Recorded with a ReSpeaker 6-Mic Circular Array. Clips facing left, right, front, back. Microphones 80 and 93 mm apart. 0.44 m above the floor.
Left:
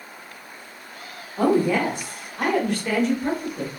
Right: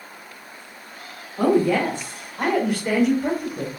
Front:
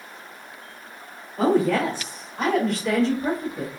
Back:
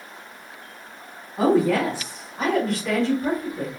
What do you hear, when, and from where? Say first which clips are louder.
1.4 s a woman speaking: right 1 dB, back 1 dB; 120° left, 1.5 m; by 3.7 s 70° right, 1.6 m